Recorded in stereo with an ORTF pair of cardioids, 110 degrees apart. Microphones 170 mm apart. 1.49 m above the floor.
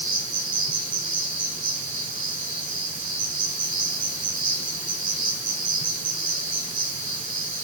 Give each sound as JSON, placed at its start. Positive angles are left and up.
{"t": 0.0, "sound": "an insect", "azimuth_deg": -60, "distance_m": 5.0}